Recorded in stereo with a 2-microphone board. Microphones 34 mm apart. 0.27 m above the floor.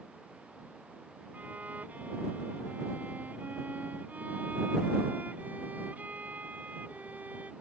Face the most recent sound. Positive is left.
turn(degrees=-60)  # may be behind; listen again after turning